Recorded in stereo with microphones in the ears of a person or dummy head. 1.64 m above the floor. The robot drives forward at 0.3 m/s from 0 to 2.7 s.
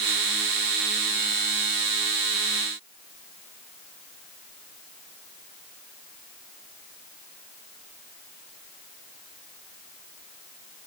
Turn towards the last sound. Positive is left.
No sound to turn to.